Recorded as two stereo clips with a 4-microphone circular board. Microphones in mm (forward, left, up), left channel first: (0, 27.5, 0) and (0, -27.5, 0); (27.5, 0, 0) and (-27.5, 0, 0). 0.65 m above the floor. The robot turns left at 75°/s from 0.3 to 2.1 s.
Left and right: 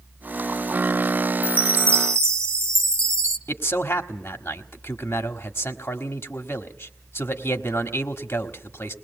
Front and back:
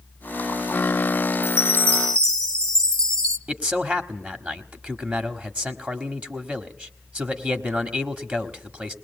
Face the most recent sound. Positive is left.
turn(degrees=125)